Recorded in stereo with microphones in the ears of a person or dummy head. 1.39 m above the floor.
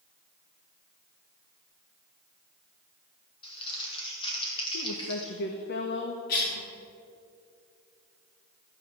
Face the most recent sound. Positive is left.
turn(degrees=50)  # may be behind; listen again after turning